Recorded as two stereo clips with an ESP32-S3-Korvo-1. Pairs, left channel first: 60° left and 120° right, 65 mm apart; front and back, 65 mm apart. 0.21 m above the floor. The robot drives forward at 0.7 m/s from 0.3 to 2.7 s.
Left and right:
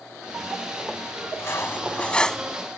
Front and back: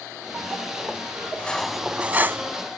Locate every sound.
1.4 s cutlery clinking: 60° left; by 2.5 s 145° left